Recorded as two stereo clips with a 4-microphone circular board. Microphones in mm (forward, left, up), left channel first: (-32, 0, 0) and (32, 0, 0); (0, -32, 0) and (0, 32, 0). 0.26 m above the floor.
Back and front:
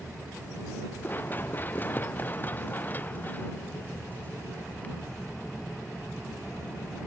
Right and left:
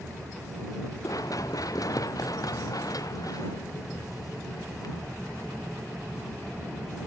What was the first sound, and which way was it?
Running footsteps, 120° right.